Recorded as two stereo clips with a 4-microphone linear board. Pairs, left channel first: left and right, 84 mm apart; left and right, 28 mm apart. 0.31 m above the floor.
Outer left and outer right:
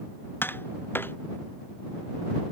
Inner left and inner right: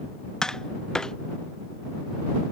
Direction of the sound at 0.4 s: 25° left (ahead or behind).